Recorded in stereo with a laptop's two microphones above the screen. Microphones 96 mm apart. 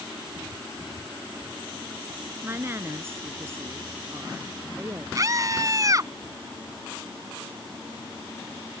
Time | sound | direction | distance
2.4 | a woman speaking | 25° right (ahead or behind) | ?
5.2 | a scream | 35° right (ahead or behind) | ?